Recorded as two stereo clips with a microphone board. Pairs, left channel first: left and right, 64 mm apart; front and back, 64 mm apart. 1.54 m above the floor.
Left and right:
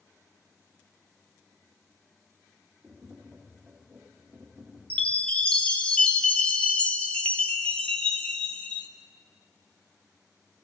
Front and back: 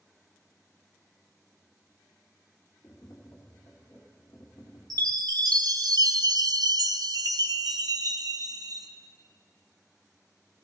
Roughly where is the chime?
Behind.